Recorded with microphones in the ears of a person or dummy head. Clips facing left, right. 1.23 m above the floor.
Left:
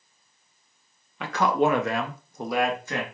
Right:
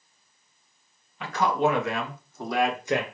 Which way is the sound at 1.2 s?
50° left (ahead or behind).